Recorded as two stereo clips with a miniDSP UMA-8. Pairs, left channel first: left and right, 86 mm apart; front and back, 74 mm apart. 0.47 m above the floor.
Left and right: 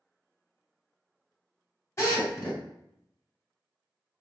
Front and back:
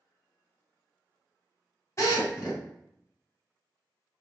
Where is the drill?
40° left, 1.8 m.